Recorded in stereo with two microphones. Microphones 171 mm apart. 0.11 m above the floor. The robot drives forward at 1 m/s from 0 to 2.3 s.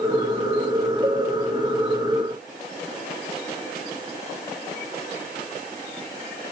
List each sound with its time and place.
1.0 s a cowbell: 25° right (ahead or behind), 9 m